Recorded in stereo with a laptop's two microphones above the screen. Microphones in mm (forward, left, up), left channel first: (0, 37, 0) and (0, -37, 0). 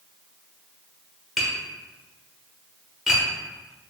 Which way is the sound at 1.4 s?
5° right (ahead or behind).